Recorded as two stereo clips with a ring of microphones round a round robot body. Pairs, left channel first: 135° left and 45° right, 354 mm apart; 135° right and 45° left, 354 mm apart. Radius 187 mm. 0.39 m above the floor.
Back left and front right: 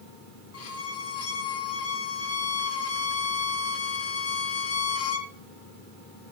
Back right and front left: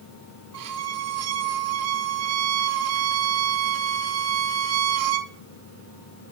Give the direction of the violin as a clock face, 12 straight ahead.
9 o'clock.